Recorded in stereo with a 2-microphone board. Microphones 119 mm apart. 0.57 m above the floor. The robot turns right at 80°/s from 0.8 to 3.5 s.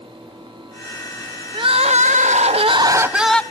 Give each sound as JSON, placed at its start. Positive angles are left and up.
{"t": 1.5, "sound": "crying", "azimuth_deg": -140, "distance_m": 0.6}